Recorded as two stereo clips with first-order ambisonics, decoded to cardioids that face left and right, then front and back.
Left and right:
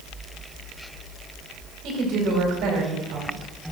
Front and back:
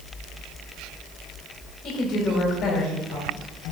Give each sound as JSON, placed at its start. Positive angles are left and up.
{"t": 1.8, "sound": "a woman speaking", "azimuth_deg": -55, "distance_m": 4.0}